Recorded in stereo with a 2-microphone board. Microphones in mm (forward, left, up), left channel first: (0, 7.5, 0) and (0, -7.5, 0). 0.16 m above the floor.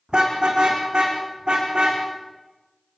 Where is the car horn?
75° right (ahead or behind), 5 m; by 2.0 s 80° right, 6.5 m.